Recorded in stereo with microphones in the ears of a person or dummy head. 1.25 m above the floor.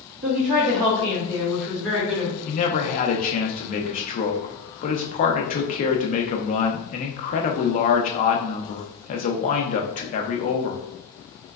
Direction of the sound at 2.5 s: 40° left (ahead or behind).